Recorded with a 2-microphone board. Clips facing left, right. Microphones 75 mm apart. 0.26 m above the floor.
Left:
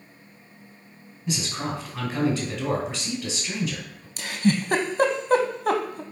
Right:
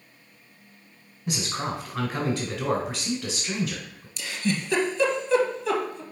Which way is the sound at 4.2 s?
50° left (ahead or behind).